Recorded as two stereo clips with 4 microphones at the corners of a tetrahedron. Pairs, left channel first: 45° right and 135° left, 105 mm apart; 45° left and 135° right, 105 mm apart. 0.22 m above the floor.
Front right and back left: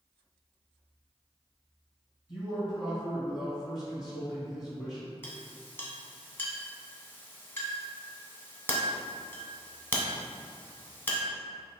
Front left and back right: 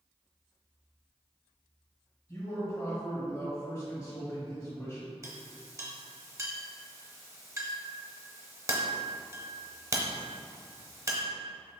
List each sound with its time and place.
2.3 s a man speaking: 55° left, 1.9 m
5.2 s a clink: 95° right, 0.7 m